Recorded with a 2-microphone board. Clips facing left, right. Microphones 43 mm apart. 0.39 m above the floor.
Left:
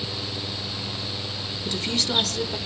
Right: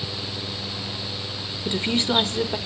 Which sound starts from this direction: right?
A woman speaking, at 1.6 s.